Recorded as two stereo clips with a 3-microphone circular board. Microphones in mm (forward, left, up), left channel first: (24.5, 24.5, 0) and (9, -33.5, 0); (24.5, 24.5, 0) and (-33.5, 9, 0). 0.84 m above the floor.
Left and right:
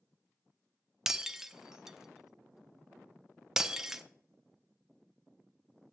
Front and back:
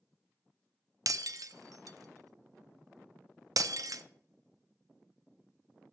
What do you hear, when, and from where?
1.1 s breaking glass: 170° left, 0.5 m